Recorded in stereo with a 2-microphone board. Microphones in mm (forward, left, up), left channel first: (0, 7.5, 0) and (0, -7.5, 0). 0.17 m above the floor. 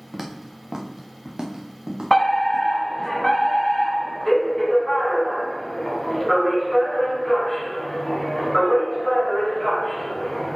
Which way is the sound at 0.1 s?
10° right (ahead or behind).